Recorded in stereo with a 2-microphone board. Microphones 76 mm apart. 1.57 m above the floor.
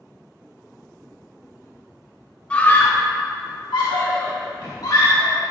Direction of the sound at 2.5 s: 15° left (ahead or behind).